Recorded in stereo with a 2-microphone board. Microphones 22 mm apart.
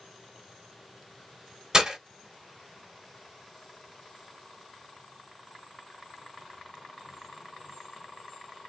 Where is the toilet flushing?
I don't hear a toilet flushing.